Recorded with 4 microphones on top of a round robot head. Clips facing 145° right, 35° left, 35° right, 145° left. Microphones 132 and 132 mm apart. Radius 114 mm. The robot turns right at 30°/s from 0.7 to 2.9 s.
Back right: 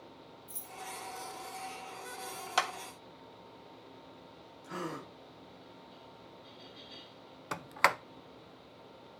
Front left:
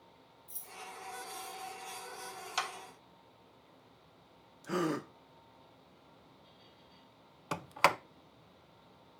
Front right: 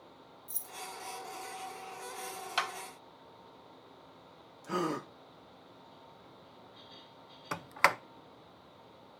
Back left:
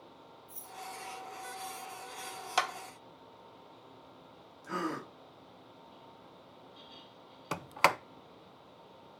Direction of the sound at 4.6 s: 35° left.